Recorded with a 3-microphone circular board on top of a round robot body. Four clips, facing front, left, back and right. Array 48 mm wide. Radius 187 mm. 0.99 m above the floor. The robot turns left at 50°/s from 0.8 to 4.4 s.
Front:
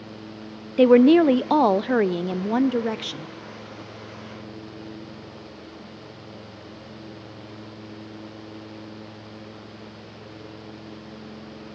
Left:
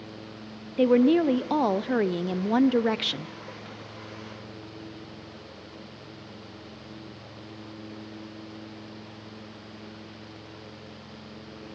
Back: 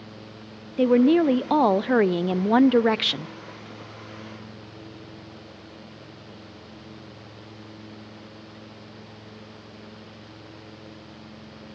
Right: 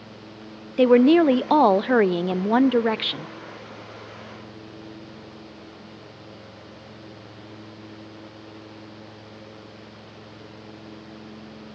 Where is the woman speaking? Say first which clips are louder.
Right 5 dB, front 4 dB; 50° right, 0.6 m; by 3.3 s 170° right, 0.6 m.